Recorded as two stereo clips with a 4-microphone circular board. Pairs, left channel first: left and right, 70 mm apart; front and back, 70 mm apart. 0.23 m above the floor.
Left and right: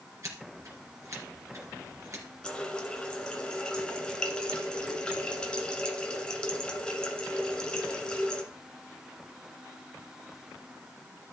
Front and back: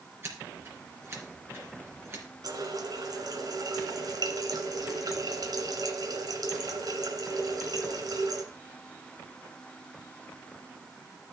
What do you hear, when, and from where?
0.2 s scissors: 130° right, 3.5 m
2.4 s a running tap: 165° left, 1.8 m